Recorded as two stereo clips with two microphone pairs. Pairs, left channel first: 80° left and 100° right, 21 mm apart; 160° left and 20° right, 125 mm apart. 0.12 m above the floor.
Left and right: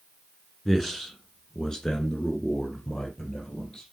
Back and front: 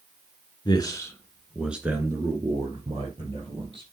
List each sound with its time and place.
0.7 s a man speaking: 150° left, 1.8 m; by 3.8 s 25° left, 4.5 m